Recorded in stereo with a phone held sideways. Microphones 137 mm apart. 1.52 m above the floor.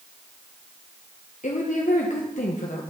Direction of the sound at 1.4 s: 65° left (ahead or behind).